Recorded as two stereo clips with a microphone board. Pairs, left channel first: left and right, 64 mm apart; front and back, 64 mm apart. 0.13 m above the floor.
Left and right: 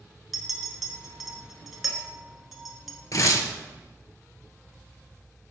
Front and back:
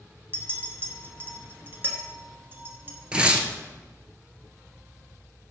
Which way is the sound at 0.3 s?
175° right.